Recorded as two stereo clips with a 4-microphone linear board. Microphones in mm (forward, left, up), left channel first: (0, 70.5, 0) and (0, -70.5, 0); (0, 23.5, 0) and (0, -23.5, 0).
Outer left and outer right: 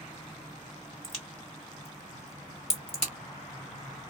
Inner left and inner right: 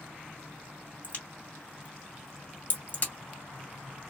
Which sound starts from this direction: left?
A crack, at 1.0 s.